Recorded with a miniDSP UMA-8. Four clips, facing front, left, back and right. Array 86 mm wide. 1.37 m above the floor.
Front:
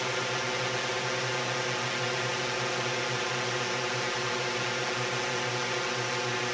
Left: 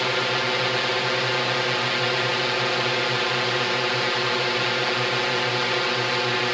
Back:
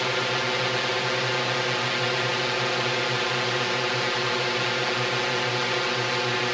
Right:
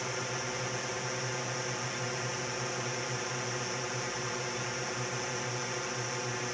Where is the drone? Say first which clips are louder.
Left 12 dB, back 5 dB; 115° left.